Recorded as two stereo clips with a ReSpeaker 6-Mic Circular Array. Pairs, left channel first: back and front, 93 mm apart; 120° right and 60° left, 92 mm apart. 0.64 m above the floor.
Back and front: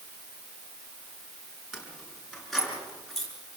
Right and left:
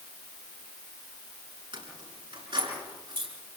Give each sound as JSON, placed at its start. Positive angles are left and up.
{"t": 1.7, "sound": "keys jangling", "azimuth_deg": 85, "distance_m": 6.5}